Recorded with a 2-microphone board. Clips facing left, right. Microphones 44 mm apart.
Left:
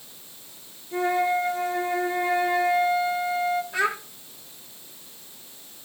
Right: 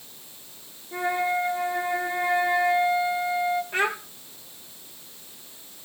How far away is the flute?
About 3 m.